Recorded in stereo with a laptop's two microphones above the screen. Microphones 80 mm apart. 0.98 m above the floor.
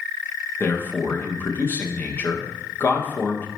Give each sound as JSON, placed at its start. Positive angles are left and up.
{"t": 0.6, "sound": "a man speaking", "side_deg": 25, "distance_m": 0.6}